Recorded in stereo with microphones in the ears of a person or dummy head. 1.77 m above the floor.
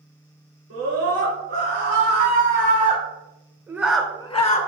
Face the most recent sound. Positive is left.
turn(degrees=45)  # may be behind; listen again after turning